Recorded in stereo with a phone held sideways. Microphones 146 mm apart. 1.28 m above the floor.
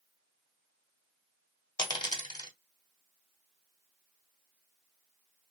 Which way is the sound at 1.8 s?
35° left (ahead or behind).